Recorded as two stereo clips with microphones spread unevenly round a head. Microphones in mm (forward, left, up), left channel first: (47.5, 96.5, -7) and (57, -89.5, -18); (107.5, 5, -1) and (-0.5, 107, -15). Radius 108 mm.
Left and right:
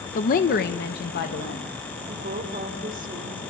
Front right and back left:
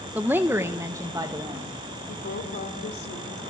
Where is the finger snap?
I don't hear a finger snap.